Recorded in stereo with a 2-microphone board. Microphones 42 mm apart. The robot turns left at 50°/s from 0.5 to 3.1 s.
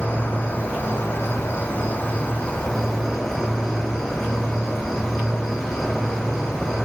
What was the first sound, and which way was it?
An insect, 130° left.